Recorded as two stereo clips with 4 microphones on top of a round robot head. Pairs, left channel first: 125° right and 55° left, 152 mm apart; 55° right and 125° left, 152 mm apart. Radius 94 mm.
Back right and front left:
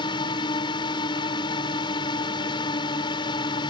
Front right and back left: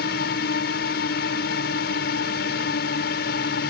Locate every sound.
0.0 s a drone: 65° right